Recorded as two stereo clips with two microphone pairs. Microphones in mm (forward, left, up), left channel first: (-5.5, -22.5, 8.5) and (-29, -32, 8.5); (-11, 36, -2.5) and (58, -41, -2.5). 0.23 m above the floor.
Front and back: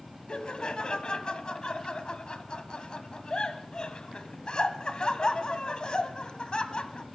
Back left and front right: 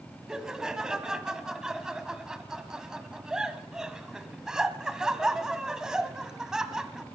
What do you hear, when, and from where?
0.3 s laughter: 30° left, 1.3 m